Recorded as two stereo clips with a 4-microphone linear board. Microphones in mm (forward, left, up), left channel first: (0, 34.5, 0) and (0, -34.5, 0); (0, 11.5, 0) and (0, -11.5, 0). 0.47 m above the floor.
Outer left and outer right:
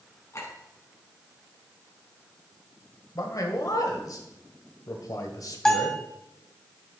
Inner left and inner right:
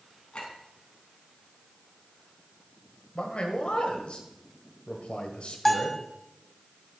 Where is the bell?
10° left (ahead or behind), 1.6 m.